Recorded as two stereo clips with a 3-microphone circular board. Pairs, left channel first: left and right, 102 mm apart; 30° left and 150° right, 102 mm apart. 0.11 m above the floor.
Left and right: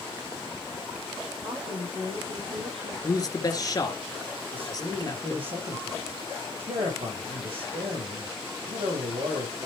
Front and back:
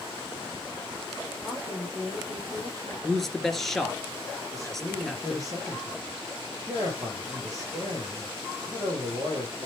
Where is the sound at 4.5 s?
95° right, 3.5 m.